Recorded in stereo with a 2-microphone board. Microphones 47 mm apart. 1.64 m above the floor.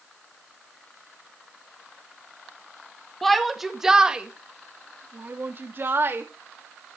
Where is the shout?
5° left (ahead or behind), 2.0 m; by 6.2 s 55° right (ahead or behind), 2.5 m.